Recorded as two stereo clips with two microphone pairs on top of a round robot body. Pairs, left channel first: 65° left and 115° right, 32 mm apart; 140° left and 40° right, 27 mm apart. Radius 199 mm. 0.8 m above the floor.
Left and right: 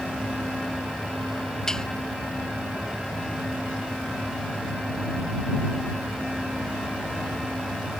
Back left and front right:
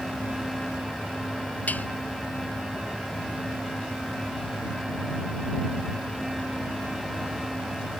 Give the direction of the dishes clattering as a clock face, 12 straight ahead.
7 o'clock.